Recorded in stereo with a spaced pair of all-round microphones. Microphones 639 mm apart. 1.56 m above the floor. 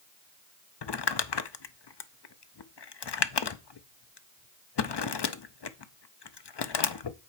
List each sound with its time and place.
0.8 s crumpling: 45° left (ahead or behind), 0.5 m